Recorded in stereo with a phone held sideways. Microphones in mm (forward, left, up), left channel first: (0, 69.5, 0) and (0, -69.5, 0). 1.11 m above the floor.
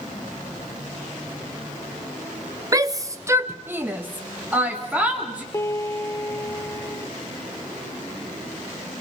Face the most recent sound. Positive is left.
turn(degrees=20)  # may be behind; listen again after turning